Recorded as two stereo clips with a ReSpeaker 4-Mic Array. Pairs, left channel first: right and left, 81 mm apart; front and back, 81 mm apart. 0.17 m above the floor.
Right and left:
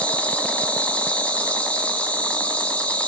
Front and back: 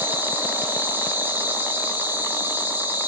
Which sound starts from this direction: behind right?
An insect, at 0.0 s.